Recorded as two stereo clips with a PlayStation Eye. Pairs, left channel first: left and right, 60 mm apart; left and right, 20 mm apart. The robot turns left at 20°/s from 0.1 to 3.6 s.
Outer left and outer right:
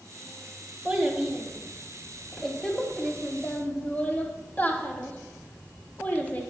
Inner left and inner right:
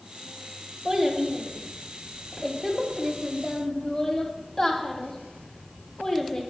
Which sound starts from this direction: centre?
A child speaking, at 0.8 s.